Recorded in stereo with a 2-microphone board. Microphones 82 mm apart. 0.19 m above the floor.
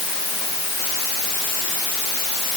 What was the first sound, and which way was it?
Only background noise.